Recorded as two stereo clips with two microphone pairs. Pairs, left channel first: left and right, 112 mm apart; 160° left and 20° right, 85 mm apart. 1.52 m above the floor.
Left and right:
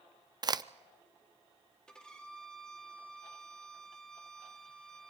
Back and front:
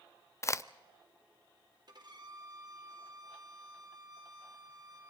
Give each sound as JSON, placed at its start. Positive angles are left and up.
{"t": 0.4, "sound": "a crack", "azimuth_deg": -145, "distance_m": 0.5}
{"t": 1.9, "sound": "a violin", "azimuth_deg": 10, "distance_m": 1.8}